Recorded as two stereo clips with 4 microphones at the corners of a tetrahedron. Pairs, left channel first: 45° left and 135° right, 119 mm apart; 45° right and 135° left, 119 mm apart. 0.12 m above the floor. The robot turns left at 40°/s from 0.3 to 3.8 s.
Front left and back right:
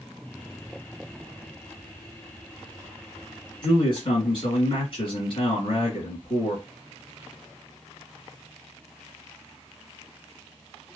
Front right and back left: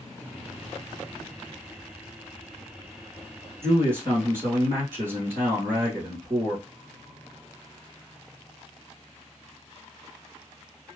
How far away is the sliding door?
I don't hear a sliding door.